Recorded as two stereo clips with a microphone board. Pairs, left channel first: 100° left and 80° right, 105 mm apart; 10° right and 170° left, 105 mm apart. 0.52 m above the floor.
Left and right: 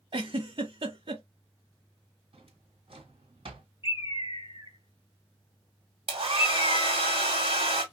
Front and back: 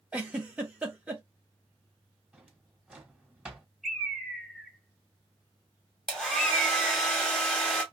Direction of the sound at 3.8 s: 75° left.